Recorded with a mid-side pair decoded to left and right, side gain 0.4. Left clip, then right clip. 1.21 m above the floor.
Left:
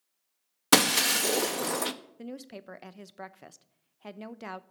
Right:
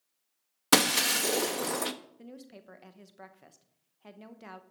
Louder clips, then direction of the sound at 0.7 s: Left 2 dB; 10° left.